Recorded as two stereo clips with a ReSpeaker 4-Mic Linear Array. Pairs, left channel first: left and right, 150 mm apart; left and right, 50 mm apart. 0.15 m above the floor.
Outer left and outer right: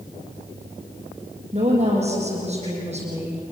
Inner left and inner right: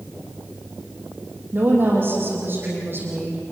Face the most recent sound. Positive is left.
turn(degrees=-45)  # may be behind; listen again after turning